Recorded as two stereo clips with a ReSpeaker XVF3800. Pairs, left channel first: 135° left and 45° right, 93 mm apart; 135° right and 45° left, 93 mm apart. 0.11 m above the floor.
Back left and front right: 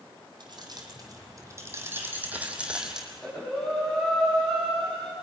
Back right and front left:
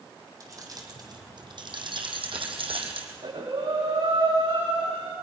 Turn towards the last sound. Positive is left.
turn(degrees=55)